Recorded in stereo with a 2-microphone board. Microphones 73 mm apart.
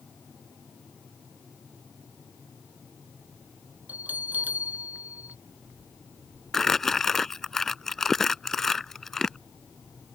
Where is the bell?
25° right (ahead or behind).